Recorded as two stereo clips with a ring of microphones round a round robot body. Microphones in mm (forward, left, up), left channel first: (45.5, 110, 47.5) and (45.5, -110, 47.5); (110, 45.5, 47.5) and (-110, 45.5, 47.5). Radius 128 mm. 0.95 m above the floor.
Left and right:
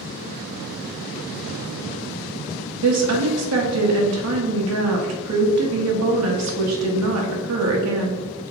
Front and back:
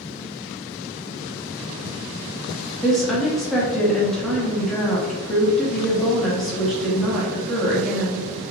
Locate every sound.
2.8 s a woman speaking: 90° right, 1.2 m